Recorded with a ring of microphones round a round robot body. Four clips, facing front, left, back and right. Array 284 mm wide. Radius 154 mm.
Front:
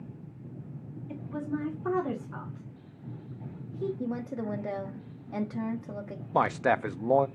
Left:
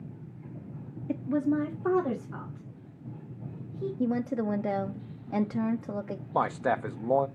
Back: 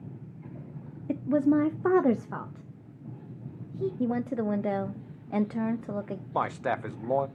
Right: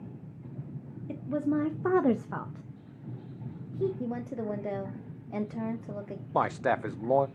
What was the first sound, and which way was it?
A woman speaking, 160° left.